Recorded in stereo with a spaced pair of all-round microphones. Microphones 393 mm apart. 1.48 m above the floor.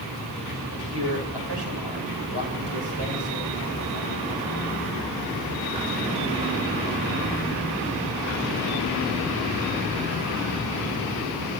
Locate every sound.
0.7 s a man speaking: 85° right, 6.5 m